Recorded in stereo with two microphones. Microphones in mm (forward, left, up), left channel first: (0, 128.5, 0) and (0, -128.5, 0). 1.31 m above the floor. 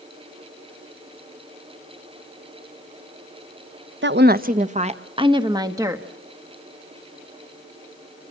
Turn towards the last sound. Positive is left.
turn(degrees=-10)  # may be behind; listen again after turning